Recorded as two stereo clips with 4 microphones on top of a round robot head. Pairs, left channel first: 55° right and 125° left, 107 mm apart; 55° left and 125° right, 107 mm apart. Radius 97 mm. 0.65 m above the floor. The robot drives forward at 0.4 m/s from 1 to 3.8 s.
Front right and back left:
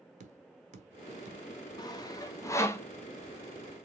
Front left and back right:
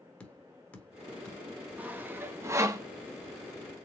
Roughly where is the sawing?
Ahead right.